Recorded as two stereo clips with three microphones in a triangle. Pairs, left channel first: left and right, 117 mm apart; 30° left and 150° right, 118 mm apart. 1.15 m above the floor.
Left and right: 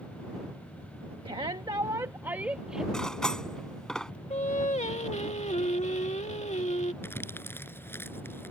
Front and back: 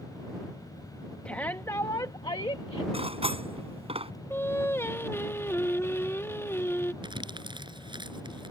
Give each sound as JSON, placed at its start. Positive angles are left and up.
{"t": 1.2, "sound": "a shout", "azimuth_deg": -50}
{"t": 2.9, "sound": "cutlery clinking", "azimuth_deg": 175}
{"t": 4.3, "sound": "singing", "azimuth_deg": 100}
{"t": 7.0, "sound": "crumpling", "azimuth_deg": 160}